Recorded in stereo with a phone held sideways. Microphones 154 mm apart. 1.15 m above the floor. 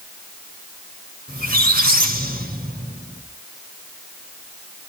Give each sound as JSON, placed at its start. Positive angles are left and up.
{"t": 1.3, "sound": "a squeak", "side_deg": -70, "distance_m": 2.0}